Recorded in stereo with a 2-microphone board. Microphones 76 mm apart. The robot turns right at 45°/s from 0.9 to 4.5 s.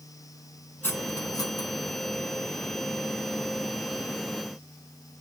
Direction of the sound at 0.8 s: 25° left (ahead or behind).